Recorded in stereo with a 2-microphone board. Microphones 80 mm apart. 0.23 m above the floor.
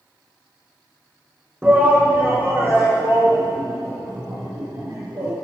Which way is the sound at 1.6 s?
20° right (ahead or behind).